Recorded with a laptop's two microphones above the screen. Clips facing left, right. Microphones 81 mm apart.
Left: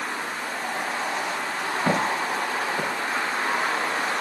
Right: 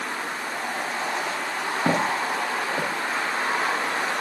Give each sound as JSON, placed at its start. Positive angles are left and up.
{"t": 1.9, "sound": "footsteps", "side_deg": -40, "distance_m": 2.5}